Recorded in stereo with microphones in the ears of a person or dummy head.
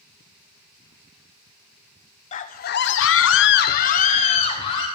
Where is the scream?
40° left (ahead or behind), 1.0 m; by 4.9 s 30° left (ahead or behind), 1.7 m.